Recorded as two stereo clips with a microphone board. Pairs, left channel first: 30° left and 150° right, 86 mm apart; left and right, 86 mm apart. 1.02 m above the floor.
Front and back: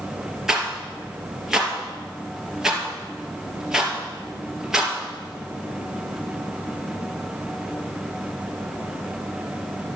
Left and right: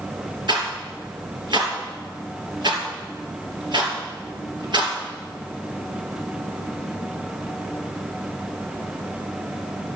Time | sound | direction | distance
0.5 | a rattle | 65° right | 3 m